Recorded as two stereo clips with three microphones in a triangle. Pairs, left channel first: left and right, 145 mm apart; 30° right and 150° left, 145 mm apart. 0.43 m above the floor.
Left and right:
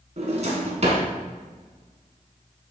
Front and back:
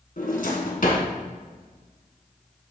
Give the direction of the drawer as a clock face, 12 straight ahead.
2 o'clock.